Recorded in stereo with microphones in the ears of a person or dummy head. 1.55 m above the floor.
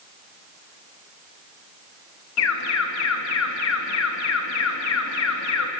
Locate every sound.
2.4 s an alarm: 80° left, 2.5 m